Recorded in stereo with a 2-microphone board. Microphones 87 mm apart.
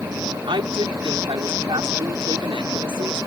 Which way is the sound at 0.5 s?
70° right (ahead or behind).